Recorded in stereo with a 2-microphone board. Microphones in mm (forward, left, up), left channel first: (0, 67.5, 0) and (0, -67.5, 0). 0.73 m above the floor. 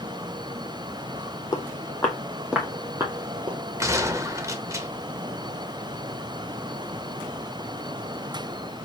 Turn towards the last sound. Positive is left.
turn(degrees=-25)  # may be behind; listen again after turning